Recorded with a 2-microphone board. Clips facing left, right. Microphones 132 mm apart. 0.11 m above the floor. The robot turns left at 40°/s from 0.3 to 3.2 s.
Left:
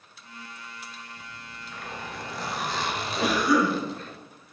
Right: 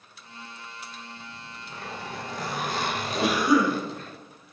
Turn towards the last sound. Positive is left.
turn(degrees=-20)  # may be behind; listen again after turning